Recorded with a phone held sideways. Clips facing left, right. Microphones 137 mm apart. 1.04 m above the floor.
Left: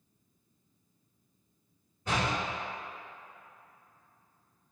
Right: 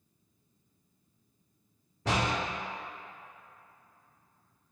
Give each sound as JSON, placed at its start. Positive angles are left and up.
{"t": 2.0, "sound": "a door slam", "side_deg": -80, "distance_m": 1.7}